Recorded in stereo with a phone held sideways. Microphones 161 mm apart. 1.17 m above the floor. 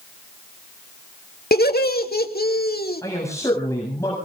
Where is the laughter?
75° left (ahead or behind), 2 m.